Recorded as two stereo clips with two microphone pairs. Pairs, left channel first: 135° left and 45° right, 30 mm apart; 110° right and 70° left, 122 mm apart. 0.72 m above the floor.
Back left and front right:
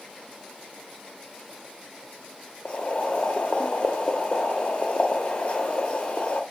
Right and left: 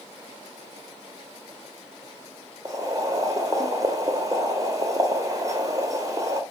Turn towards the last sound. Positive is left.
turn(degrees=115)